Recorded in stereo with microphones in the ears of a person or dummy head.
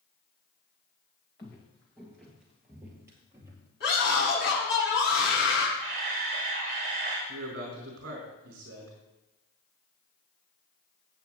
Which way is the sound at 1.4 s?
20° left (ahead or behind).